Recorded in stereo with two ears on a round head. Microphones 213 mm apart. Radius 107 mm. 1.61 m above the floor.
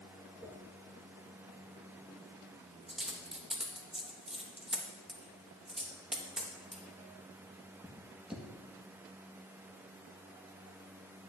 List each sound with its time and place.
0.4 s a dropped coin: 5° right (ahead or behind), 1.0 m